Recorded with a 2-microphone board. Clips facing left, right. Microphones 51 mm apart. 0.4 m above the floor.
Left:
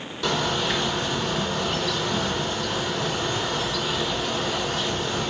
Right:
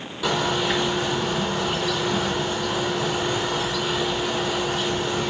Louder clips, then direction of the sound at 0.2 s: Right 2 dB; 5° right (ahead or behind).